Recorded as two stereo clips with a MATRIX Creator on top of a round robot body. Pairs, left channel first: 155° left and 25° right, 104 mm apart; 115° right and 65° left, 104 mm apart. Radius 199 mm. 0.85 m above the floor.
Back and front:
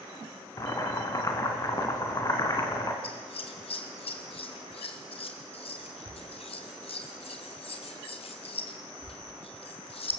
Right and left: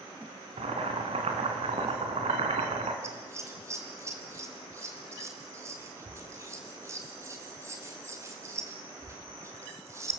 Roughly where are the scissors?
Behind left.